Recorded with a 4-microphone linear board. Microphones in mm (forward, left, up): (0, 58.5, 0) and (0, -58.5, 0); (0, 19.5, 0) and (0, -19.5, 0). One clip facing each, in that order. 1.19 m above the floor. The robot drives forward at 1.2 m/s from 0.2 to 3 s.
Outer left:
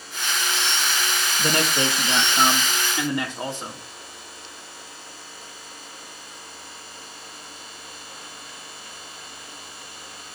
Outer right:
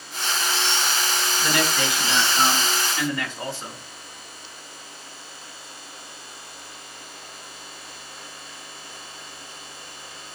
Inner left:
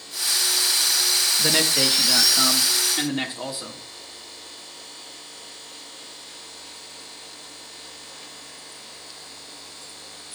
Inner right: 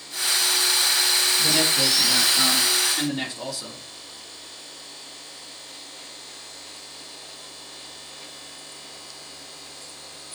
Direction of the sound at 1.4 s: 40° left (ahead or behind).